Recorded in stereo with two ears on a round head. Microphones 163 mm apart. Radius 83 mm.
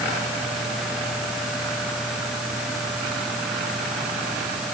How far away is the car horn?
I don't hear a car horn.